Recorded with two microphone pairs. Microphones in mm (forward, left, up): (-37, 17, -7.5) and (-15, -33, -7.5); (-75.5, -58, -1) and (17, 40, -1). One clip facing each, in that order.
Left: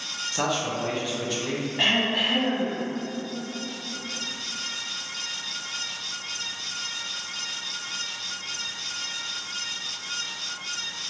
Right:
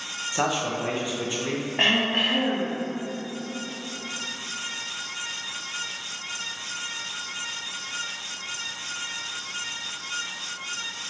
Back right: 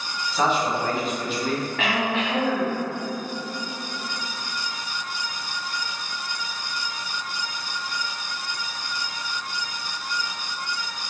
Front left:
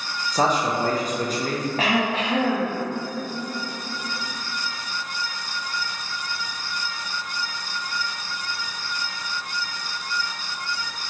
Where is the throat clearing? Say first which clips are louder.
Right 1 dB, front left 4 dB; 10° right, 0.7 m.